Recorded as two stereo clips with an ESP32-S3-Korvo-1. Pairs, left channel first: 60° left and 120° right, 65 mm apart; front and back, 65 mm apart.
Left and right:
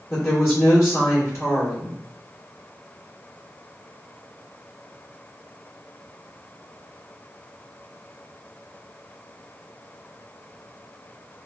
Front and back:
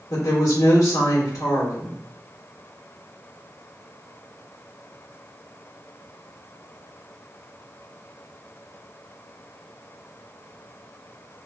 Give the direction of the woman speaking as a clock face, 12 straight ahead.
11 o'clock.